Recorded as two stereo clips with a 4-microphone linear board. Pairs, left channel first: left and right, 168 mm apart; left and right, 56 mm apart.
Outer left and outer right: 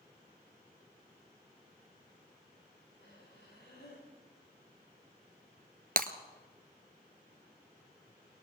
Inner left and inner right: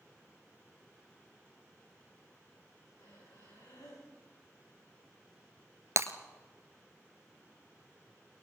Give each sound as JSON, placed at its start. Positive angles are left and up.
{"t": 3.0, "sound": "breathing", "side_deg": 80, "distance_m": 9.5}
{"t": 6.0, "sound": "breaking glass", "side_deg": -60, "distance_m": 1.1}